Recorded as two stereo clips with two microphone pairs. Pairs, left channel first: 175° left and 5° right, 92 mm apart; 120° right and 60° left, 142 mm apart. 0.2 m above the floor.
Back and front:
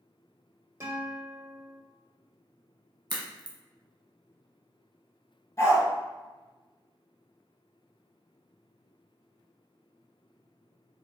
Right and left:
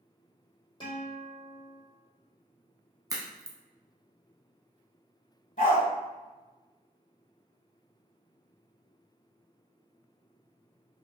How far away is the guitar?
About 1.1 m.